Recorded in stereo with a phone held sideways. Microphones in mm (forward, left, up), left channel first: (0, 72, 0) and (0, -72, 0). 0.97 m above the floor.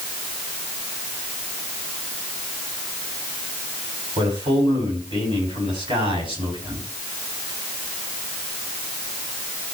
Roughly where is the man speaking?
Right.